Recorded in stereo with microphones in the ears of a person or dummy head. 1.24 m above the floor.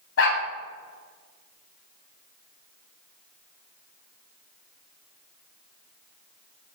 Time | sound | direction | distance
0.2 | a dog barking | 80° left | 3.5 m